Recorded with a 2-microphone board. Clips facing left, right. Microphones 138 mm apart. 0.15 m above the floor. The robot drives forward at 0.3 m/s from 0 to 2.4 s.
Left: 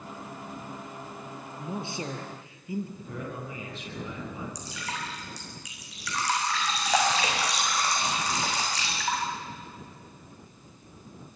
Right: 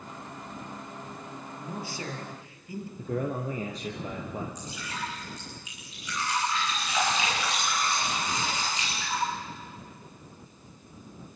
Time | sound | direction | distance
1.6 | a man speaking | 25° left (ahead or behind) | 4 m
3.0 | a man speaking | 40° right (ahead or behind) | 3.5 m
4.5 | dripping | 85° left | 6.5 m